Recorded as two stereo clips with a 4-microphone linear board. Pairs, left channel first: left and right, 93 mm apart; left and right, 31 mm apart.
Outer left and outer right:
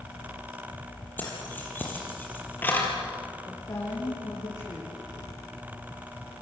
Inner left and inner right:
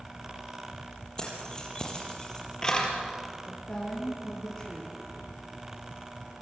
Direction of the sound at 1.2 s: 20° left (ahead or behind).